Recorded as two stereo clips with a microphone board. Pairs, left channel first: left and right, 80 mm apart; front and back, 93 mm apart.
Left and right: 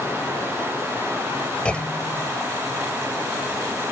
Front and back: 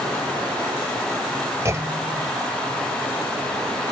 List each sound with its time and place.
1.6 s a clunk: 155° left